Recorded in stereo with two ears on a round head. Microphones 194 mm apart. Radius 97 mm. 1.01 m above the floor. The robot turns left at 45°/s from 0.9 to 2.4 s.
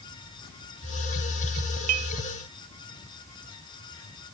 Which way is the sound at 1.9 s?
80° right.